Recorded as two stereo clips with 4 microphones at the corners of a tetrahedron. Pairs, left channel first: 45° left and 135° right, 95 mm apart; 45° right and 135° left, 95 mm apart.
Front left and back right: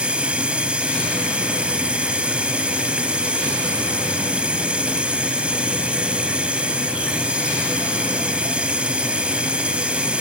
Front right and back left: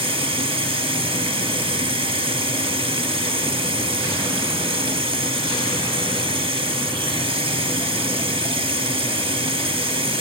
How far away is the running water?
About 0.7 m.